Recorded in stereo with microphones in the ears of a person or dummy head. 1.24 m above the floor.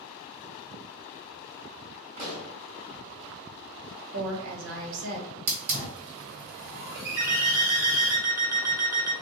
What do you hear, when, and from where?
2.2 s a pop: 45° right (ahead or behind), 1.5 m
4.1 s a woman speaking: 70° right (ahead or behind), 1.5 m
5.5 s a hiss: 55° right (ahead or behind), 1.7 m
7.2 s an alarm clock: 15° right (ahead or behind), 0.8 m